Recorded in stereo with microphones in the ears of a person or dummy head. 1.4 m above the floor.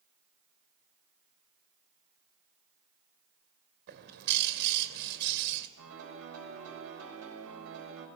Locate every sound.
3.9 s a bird: 60° right (ahead or behind), 2.5 m
5.8 s a piano: 80° right, 7.5 m